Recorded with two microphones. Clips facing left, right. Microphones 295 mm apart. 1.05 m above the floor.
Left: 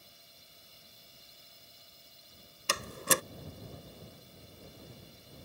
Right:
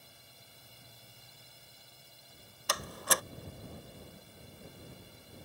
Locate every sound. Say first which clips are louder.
0.0 s a drone: right 2 dB; 65° right (ahead or behind)
2.7 s a door slam: left 3 dB; 30° left (ahead or behind)